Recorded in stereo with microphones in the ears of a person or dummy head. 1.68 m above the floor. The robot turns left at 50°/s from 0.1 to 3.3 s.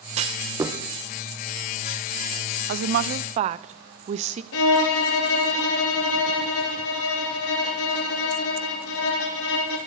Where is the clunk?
35° right (ahead or behind), 1.0 m; by 0.8 s 10° right (ahead or behind), 1.0 m.